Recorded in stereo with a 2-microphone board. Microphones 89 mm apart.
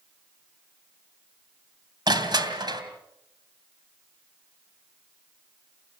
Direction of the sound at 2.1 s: 55° right (ahead or behind).